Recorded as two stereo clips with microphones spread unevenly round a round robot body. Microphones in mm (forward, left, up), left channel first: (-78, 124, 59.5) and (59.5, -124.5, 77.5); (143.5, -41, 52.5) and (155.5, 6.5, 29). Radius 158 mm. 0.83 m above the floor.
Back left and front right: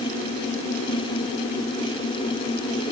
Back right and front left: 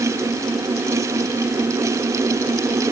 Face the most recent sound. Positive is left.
No sound to turn to.